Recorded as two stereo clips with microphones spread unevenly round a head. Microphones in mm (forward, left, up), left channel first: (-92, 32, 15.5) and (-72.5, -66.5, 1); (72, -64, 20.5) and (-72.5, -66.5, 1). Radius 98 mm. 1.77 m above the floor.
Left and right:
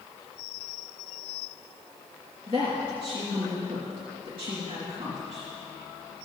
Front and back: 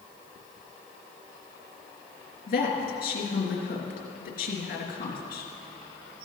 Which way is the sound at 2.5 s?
15° right.